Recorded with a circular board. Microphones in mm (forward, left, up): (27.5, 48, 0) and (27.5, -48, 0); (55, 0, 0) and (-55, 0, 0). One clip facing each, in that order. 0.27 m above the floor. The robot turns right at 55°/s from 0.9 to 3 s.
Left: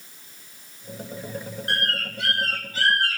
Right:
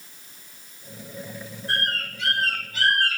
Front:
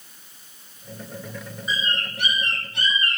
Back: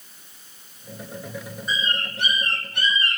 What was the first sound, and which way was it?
A bird, 85° left.